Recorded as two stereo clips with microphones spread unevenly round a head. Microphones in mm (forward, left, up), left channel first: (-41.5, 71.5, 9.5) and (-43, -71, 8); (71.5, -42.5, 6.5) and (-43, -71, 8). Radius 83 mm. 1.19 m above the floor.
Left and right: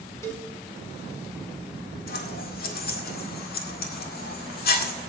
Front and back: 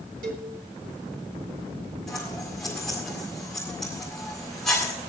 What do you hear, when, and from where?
0.2 s a cowbell: 160° left, 2 m
2.1 s scissors: 100° left, 1.9 m